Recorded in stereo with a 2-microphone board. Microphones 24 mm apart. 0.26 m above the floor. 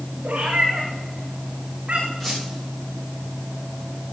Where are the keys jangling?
No keys jangling in this recording.